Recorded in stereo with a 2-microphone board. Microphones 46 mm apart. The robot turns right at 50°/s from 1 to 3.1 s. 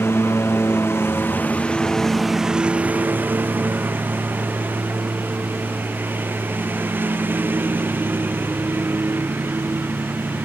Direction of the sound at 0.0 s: 65° left (ahead or behind).